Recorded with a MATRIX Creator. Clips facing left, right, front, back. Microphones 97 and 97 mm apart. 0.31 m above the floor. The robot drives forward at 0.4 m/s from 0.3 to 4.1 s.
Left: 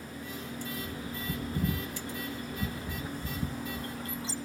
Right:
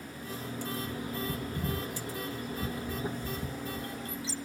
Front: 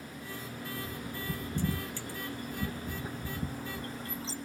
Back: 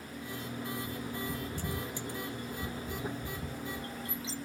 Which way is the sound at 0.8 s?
30° left.